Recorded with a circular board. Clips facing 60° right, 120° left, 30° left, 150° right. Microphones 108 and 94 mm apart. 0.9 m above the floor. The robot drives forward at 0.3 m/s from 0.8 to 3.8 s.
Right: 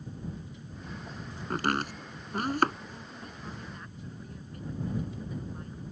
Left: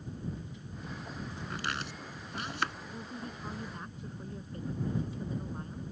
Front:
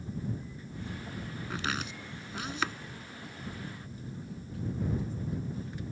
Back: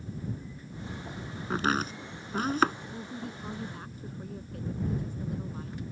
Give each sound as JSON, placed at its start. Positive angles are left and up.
{"t": 1.5, "sound": "chopping", "azimuth_deg": -100}
{"t": 2.9, "sound": "a woman speaking", "azimuth_deg": 180}